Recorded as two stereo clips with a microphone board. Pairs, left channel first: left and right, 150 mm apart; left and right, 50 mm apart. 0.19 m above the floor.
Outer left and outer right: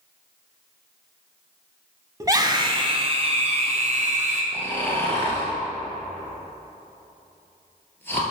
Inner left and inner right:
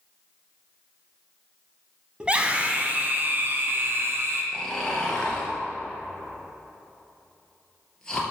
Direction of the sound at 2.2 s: 20° right (ahead or behind).